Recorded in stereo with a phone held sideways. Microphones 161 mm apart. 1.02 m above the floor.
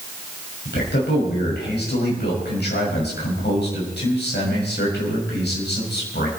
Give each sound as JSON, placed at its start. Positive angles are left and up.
{"t": 0.7, "sound": "a man speaking", "side_deg": 85, "distance_m": 6.0}